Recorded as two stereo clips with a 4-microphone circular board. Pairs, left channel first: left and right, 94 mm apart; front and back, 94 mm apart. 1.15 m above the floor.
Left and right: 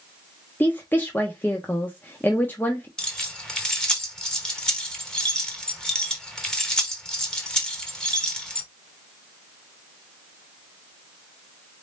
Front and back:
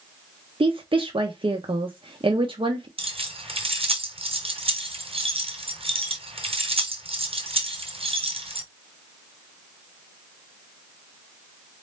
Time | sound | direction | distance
0.6 | a woman speaking | 160° left | 0.7 m
3.0 | keys jangling | 175° left | 0.9 m